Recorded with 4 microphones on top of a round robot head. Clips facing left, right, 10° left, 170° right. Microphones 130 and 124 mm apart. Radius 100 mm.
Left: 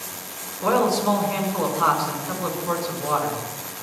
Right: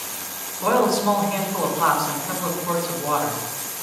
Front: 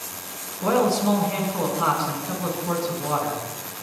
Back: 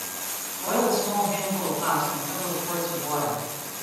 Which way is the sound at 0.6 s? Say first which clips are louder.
Right 1 dB, front 3 dB; 15° right.